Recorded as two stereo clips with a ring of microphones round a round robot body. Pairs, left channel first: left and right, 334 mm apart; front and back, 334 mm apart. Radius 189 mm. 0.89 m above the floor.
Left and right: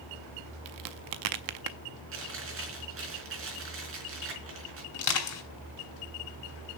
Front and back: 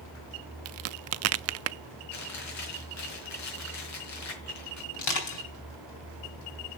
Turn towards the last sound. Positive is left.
turn(degrees=45)